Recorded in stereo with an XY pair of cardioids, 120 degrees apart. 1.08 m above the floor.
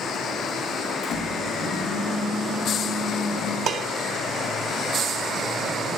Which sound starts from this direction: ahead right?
Dishes clattering, at 3.7 s.